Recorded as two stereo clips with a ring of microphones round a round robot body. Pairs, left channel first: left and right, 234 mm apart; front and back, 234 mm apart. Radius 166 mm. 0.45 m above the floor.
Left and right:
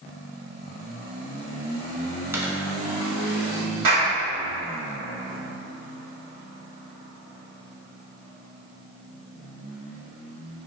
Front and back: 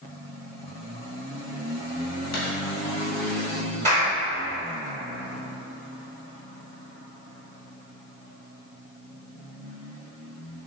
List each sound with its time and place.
2.3 s a dropped coin: 10° right, 1.3 m
3.8 s a clap: 115° right, 1.6 m